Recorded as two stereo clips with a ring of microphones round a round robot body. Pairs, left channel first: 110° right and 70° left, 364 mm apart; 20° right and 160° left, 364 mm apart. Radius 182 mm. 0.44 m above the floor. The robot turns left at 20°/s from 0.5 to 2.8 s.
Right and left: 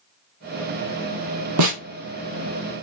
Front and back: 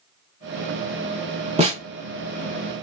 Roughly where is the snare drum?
Left.